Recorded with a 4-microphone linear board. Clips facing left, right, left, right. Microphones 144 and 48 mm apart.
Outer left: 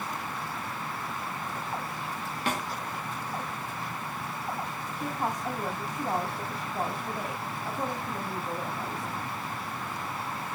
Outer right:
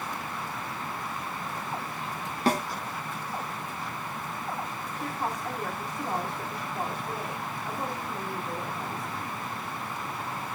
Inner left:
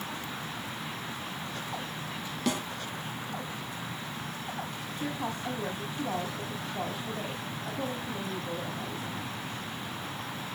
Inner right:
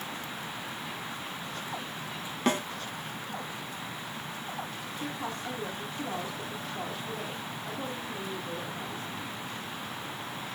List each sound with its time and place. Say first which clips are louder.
2.5 s a snare drum: outer right 6 dB, inner right 3 dB; 35° right (ahead or behind), 3 m
5.0 s a woman speaking: outer left 1 dB, inner left 2 dB; 15° left (ahead or behind), 4.5 m